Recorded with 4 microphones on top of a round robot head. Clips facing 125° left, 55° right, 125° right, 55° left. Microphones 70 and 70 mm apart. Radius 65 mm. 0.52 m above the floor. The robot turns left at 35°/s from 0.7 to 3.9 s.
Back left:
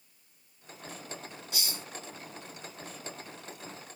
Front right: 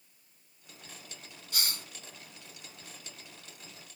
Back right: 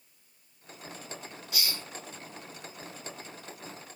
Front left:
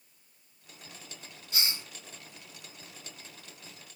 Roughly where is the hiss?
Ahead.